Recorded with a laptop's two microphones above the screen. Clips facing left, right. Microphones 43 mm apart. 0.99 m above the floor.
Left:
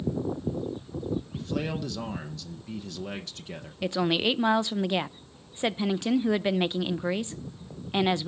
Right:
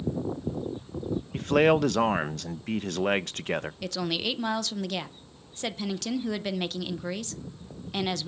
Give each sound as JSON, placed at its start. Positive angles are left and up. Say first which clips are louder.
{"t": 1.3, "sound": "a man speaking", "louder": "right 10 dB", "side_deg": -60, "distance_m": 0.6}
{"t": 3.8, "sound": "a woman speaking", "louder": "left 5 dB", "side_deg": 25, "distance_m": 0.6}